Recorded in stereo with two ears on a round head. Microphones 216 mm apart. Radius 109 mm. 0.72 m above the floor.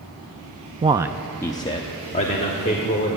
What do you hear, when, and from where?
0.8 s a man speaking: 25° right (ahead or behind), 0.5 m; by 3.2 s 30° left (ahead or behind), 2.0 m